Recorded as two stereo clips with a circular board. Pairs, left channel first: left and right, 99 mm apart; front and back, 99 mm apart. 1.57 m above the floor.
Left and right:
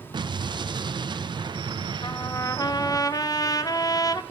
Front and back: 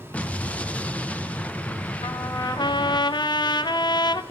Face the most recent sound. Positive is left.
turn(degrees=40)